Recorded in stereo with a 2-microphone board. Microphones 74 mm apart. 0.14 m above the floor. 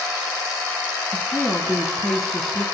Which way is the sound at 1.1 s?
5° left (ahead or behind).